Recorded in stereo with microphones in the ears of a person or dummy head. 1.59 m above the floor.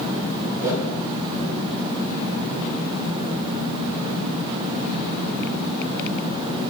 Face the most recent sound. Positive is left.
turn(degrees=-5)  # may be behind; listen again after turning